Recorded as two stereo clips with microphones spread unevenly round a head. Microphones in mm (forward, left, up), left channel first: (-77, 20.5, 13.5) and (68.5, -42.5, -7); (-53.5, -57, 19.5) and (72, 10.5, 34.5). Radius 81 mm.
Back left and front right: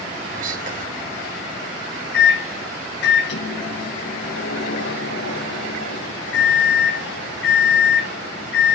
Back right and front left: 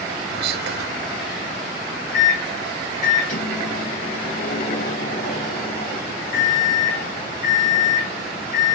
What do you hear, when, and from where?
0.3 s whispering: 20° left, 1.5 m
2.1 s a microwave: 165° left, 1.1 m